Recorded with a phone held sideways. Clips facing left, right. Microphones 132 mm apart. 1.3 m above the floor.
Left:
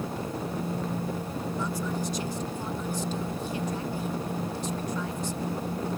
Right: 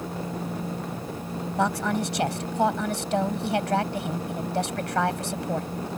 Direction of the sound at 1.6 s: 85° right.